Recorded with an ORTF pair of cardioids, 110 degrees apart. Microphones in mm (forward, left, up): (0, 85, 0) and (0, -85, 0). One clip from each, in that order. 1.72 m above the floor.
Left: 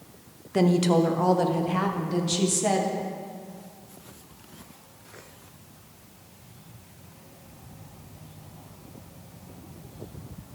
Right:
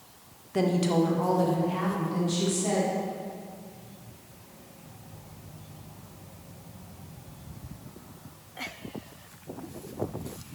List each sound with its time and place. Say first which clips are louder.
0.5 s a woman speaking: left 3 dB; 20° left, 0.8 m; by 3.0 s 55° left, 1.8 m